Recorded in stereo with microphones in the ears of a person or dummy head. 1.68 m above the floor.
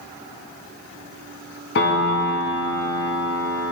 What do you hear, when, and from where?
1.8 s a piano: 65° left (ahead or behind), 1.1 m